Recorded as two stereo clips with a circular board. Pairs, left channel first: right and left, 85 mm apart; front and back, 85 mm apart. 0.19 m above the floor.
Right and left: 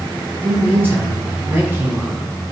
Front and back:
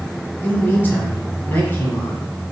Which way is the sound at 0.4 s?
50° left.